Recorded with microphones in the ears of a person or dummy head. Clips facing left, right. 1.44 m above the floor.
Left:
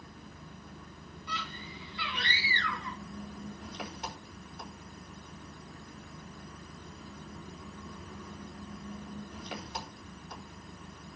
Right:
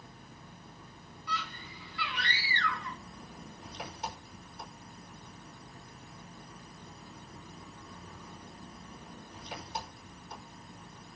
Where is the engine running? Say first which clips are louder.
Left 3 dB; 55° left (ahead or behind), 4.5 m.